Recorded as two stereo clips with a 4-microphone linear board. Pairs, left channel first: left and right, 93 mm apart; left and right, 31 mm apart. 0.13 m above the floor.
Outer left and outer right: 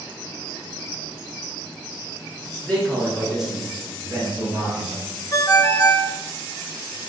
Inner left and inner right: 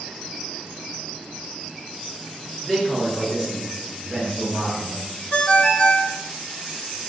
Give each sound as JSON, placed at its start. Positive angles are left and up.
{"t": 2.6, "sound": "a man speaking", "side_deg": 10, "distance_m": 2.0}
{"t": 5.3, "sound": "a ringtone", "side_deg": 40, "distance_m": 0.6}